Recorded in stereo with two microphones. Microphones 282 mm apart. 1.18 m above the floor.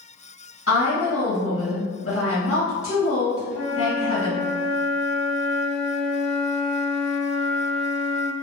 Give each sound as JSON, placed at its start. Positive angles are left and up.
{"t": 0.7, "sound": "a woman speaking", "side_deg": 50, "distance_m": 1.2}
{"t": 3.5, "sound": "a flute", "side_deg": -60, "distance_m": 0.7}